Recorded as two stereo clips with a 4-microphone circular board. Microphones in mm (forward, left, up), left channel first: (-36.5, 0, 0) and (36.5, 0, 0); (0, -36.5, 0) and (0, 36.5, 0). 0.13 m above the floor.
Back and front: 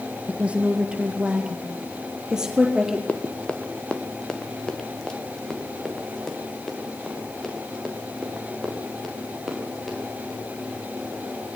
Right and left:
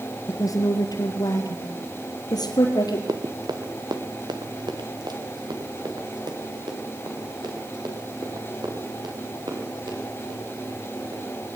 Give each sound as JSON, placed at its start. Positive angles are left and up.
{"t": 0.3, "sound": "a woman speaking", "azimuth_deg": -70, "distance_m": 2.5}
{"t": 3.1, "sound": "running footsteps", "azimuth_deg": 110, "distance_m": 1.4}